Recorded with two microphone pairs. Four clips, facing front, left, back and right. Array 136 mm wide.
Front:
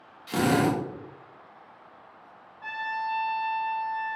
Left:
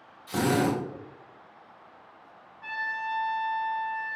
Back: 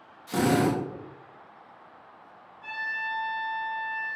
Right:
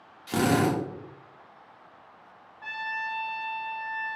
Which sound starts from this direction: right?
A drill, at 0.3 s.